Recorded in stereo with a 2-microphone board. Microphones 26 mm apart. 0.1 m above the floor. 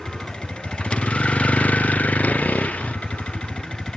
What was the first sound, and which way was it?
A vehicle, 35° left (ahead or behind).